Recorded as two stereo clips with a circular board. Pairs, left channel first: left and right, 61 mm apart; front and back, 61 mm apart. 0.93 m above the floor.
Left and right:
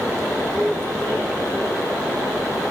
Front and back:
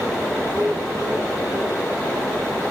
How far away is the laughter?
About 2.5 m.